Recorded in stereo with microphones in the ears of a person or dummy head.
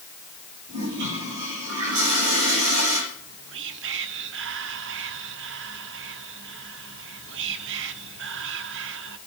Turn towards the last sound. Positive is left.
turn(degrees=-55)  # may be behind; listen again after turning